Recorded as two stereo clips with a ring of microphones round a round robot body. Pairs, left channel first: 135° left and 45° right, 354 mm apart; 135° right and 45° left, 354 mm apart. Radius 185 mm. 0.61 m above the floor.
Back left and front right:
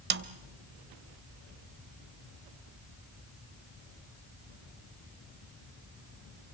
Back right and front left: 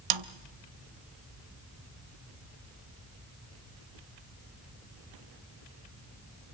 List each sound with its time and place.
0.1 s a snare drum: 15° left, 0.7 m